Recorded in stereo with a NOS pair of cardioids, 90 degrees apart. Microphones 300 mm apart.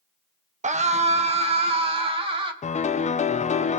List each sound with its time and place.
0.6 s a scream: 25° right, 1.4 m; by 2.5 s 15° right, 3 m
2.6 s a piano: 25° left, 0.7 m